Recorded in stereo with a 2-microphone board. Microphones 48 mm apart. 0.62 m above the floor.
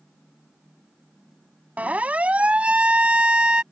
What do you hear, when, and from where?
1.8 s a siren: 30° right (ahead or behind); by 3.6 s 15° right (ahead or behind)